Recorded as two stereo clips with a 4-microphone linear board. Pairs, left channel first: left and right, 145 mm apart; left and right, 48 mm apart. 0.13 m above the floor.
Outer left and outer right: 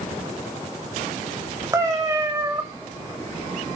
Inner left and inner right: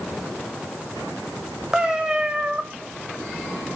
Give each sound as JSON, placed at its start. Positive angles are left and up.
{"t": 1.7, "sound": "a cat meowing", "side_deg": -20, "distance_m": 6.0}